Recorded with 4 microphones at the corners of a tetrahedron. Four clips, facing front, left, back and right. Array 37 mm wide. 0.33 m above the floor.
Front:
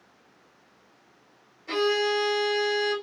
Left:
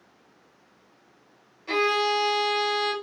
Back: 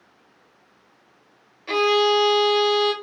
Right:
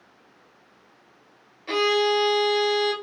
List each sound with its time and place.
1.7 s a violin: 165° right, 1.0 m